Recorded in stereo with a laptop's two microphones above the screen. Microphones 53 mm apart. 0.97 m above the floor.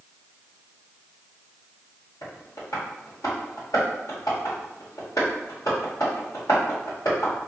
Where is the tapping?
80° left, 1.7 m.